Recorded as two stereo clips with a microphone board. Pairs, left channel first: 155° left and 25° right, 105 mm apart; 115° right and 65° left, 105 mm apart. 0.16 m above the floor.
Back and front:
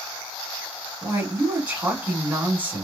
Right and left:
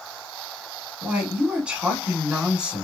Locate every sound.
1.0 s a woman speaking: 5° left, 1.0 m